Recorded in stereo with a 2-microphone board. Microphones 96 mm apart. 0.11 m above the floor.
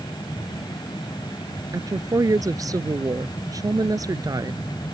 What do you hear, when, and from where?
1.7 s a woman speaking: 40° right (ahead or behind)